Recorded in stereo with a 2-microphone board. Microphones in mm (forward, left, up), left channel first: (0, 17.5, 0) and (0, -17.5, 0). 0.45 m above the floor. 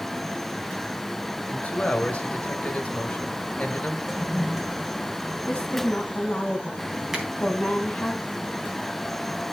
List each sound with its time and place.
1.5 s a man speaking: 40° left (ahead or behind), 1.5 m
4.1 s a toilet flushing: 10° right (ahead or behind), 2 m
5.5 s a woman speaking: 15° left (ahead or behind), 3.5 m
7.1 s a finger snap: 15° right (ahead or behind), 3 m